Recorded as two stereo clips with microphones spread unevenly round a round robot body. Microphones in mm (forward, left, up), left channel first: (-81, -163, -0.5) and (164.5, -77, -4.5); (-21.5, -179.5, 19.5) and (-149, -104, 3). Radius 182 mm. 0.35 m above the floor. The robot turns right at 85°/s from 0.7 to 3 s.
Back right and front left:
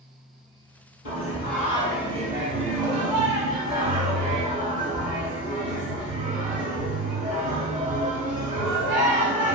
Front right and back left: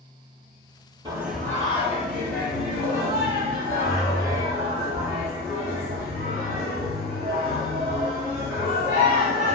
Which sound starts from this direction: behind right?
Singing, at 1.1 s.